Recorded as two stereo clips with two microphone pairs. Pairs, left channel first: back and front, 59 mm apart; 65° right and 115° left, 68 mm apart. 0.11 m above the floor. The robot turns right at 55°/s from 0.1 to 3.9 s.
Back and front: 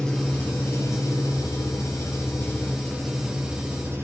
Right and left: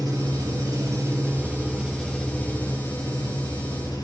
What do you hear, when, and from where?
0.0 s an engine running: 100° left, 8.5 m; by 4.0 s 50° right, 8.5 m